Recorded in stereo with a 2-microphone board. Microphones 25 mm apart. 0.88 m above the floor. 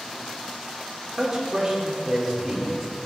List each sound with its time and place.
1.2 s a man speaking: 10° right (ahead or behind), 3 m